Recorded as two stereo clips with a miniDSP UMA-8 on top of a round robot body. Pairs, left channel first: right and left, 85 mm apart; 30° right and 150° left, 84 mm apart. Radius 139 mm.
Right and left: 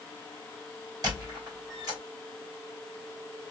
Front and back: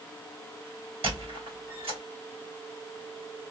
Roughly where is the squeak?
Behind left.